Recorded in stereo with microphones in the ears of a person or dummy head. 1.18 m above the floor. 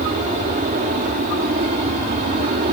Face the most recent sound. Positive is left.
turn(degrees=-35)  # may be behind; listen again after turning